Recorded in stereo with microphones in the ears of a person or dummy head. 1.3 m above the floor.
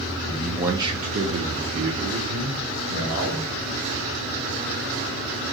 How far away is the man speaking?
About 0.6 m.